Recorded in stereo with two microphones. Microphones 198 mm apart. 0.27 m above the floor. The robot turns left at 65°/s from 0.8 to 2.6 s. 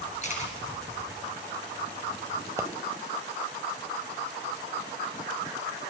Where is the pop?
15° right (ahead or behind), 1.0 m.